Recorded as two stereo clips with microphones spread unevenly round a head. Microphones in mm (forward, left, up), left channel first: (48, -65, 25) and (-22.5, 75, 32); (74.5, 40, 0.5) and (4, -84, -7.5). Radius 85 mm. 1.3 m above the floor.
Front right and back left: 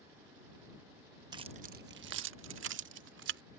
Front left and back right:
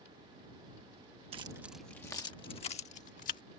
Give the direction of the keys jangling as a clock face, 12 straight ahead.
6 o'clock.